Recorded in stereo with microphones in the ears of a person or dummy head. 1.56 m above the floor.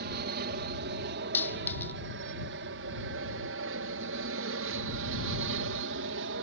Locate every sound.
0.0 s an aircraft: 45° right (ahead or behind); by 6.4 s 60° right (ahead or behind)
1.3 s a dropped coin: 10° left (ahead or behind)